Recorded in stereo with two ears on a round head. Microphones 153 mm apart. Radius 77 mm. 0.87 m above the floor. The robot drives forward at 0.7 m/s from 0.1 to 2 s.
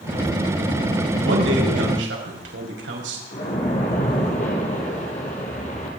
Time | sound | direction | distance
1.2 | a man speaking | 80° right | 5 m
3.3 | a splash | 40° left (ahead or behind) | 5.5 m